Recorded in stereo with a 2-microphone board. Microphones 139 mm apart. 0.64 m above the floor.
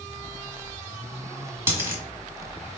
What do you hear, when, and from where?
1.7 s a dropped coin: 15° right (ahead or behind), 1.3 m